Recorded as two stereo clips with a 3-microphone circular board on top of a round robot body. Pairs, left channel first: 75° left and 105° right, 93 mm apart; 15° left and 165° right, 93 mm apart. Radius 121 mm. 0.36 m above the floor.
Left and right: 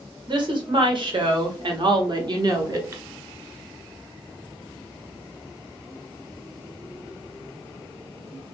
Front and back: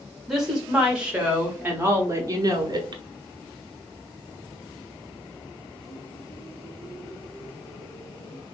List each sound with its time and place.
0.3 s a woman speaking: 75° right, 1.7 m; by 3.0 s 150° right, 1.1 m